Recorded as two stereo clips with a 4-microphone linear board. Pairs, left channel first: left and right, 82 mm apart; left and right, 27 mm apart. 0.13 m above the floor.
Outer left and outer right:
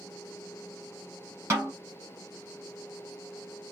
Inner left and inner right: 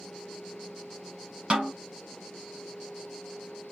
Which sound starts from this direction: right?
A snare drum, at 1.5 s.